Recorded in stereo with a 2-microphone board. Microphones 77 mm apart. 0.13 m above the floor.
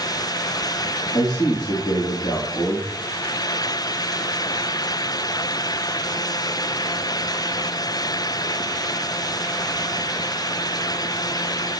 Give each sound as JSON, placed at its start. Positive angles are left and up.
{"t": 1.1, "sound": "a man speaking", "side_deg": 65, "distance_m": 4.0}